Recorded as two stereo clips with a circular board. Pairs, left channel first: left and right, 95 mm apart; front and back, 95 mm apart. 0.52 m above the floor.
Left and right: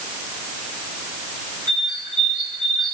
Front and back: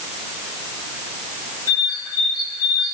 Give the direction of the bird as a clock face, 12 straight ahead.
2 o'clock.